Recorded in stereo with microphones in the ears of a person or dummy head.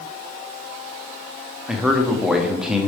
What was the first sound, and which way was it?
A man speaking, centre (ahead or behind).